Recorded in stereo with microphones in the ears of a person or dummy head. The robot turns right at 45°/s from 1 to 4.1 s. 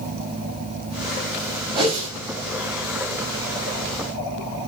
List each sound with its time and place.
1.8 s a whoosh: 20° right (ahead or behind), 4.5 m; by 2.1 s 40° right (ahead or behind), 4.5 m